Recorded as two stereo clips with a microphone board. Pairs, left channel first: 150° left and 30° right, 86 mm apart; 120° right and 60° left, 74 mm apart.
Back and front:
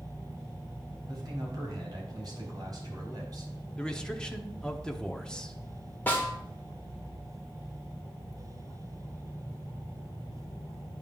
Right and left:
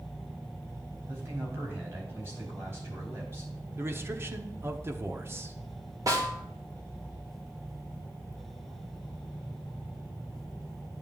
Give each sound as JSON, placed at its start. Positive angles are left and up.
{"t": 1.1, "sound": "a man speaking", "azimuth_deg": 10, "distance_m": 4.0}
{"t": 3.8, "sound": "a man speaking", "azimuth_deg": 75, "distance_m": 0.8}
{"t": 6.1, "sound": "a snare drum", "azimuth_deg": 85, "distance_m": 1.9}